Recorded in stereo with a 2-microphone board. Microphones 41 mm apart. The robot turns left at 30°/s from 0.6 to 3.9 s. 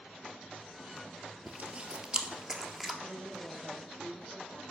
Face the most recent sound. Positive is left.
turn(degrees=-35)  # may be behind; listen again after turning